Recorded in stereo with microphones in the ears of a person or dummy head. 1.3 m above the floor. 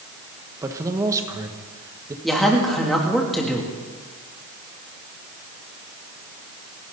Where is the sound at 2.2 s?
Centre (ahead or behind), 3 m.